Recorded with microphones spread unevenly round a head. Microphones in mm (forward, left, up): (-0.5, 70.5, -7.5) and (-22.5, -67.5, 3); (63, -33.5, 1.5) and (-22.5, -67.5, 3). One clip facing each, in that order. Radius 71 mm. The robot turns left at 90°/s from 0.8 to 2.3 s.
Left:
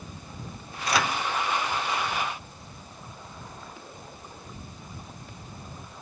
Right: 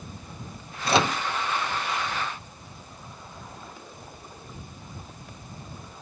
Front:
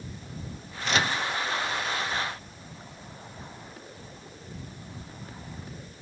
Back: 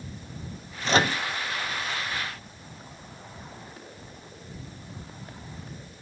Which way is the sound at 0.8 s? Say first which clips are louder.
Right 4 dB, back 4 dB; 130° right.